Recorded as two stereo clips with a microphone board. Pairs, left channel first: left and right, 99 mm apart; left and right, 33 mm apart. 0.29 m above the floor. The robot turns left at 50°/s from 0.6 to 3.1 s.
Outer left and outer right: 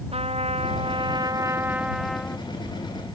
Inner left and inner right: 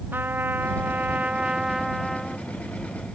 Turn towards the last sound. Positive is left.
turn(degrees=130)